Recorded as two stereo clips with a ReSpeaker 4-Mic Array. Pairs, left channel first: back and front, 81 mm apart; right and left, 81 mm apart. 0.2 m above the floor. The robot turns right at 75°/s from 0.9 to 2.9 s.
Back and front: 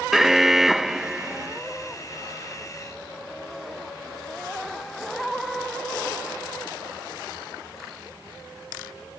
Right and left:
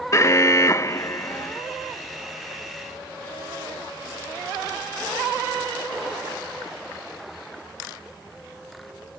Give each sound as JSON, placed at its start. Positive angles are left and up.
{"t": 0.1, "sound": "an alarm", "azimuth_deg": -85}